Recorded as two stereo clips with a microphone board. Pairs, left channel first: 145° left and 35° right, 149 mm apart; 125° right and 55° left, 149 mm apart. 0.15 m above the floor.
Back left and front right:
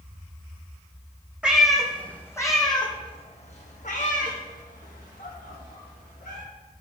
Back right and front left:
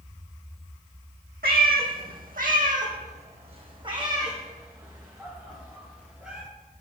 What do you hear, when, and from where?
1.4 s a cat meowing: 50° left, 1.3 m; by 6.4 s 140° left, 2.5 m